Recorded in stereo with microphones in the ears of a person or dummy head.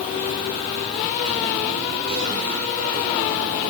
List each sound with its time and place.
Only background noise.